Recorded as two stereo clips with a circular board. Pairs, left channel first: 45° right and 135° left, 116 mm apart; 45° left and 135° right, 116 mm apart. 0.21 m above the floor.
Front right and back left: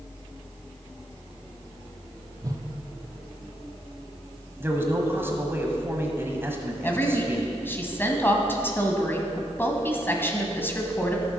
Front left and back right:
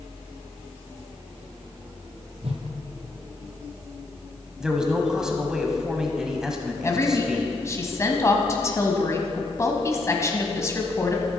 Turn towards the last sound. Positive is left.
turn(degrees=10)